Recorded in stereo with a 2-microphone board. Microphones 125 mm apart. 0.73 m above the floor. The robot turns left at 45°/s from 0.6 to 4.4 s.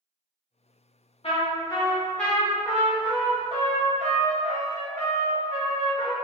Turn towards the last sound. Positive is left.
turn(degrees=-90)